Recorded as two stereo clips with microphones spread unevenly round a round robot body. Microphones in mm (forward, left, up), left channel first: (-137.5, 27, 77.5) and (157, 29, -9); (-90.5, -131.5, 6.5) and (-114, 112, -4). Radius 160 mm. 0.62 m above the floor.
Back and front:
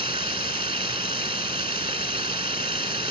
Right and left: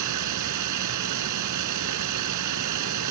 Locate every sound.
0.0 s running water: 75° left